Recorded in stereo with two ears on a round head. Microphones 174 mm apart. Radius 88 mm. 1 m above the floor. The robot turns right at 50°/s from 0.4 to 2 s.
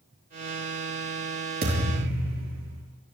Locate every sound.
1.6 s a thud: 50° right (ahead or behind), 7 m; by 2.8 s 70° right (ahead or behind), 7 m